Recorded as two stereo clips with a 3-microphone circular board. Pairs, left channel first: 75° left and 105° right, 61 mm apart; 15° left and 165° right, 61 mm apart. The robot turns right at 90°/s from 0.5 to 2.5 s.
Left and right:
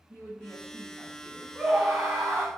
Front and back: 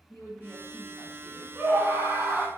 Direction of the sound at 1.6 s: 170° left.